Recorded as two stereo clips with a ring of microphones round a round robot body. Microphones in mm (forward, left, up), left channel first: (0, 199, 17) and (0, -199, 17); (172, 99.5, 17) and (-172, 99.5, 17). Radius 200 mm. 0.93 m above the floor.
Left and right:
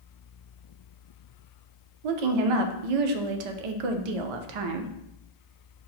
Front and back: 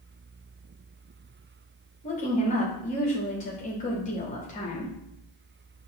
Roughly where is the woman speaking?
Right.